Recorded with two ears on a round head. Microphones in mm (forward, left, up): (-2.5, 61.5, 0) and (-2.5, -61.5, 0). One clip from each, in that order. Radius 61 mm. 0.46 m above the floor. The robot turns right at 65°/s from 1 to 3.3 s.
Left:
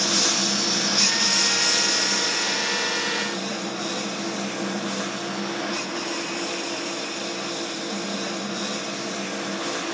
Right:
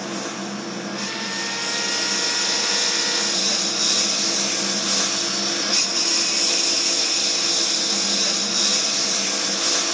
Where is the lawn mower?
115° left; by 9.9 s 100° right.